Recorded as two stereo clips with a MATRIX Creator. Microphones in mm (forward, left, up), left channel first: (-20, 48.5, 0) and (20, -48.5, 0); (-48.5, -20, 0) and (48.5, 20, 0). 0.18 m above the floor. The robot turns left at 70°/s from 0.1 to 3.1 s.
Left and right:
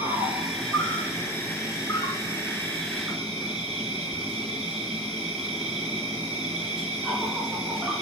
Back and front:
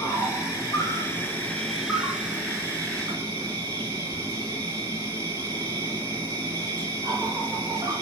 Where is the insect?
120° right, 1.6 m; by 8.0 s 30° left, 1.6 m.